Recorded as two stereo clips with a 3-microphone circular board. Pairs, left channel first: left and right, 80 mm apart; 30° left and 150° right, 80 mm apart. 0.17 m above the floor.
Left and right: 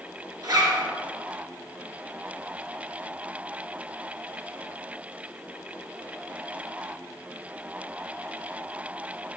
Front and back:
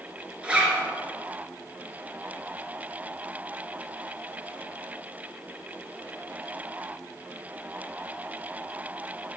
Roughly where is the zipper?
Right.